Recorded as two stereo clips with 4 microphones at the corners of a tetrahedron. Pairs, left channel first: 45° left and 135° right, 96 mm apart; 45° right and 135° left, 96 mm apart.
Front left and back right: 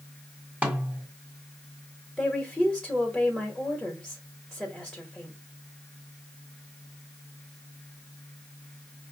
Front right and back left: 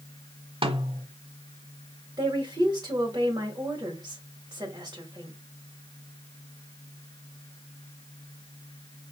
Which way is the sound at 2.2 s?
130° left.